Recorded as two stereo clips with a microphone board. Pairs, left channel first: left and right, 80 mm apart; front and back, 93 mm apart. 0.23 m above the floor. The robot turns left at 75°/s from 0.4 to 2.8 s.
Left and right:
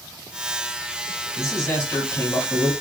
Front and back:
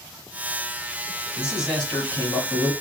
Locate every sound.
1.4 s a man speaking: 115° left, 1.5 m; by 2.7 s 15° left, 1.5 m